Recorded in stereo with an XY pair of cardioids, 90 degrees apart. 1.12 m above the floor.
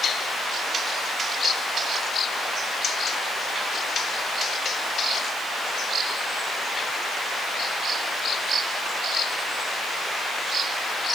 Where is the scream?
I don't hear a scream.